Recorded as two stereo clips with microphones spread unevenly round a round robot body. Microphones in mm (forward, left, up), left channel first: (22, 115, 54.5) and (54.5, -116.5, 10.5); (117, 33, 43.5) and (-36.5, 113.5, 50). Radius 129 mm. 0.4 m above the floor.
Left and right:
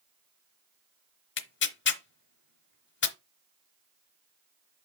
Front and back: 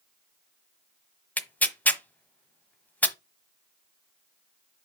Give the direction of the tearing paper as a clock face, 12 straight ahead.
10 o'clock.